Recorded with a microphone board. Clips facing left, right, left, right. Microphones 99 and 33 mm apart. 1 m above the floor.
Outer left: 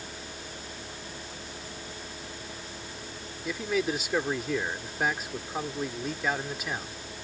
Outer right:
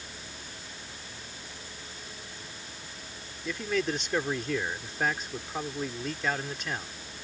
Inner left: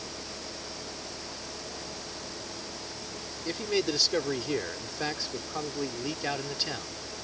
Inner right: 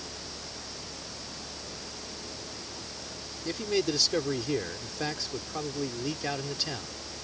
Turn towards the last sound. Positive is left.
turn(degrees=5)  # may be behind; listen again after turning